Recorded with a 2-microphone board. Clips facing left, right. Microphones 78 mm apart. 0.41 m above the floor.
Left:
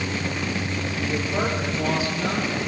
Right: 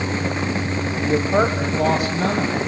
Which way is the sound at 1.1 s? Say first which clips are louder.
Right 8 dB; 55° right (ahead or behind).